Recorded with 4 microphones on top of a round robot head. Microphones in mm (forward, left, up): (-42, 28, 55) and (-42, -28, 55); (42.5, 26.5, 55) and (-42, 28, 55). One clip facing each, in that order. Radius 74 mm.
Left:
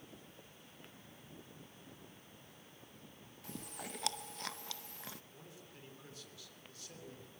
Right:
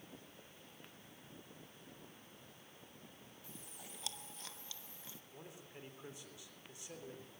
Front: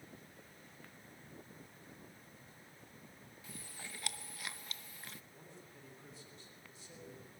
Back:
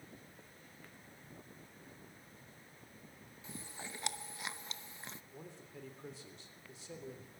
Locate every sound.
3.4 s chewing: 110° left, 0.8 m
5.3 s a man speaking: 160° right, 3.5 m